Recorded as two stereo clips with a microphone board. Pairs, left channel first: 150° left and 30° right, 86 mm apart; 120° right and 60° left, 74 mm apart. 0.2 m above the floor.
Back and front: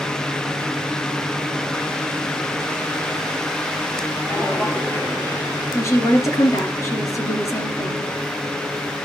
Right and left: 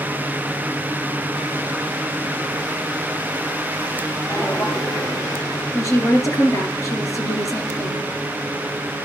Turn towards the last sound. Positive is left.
turn(degrees=-160)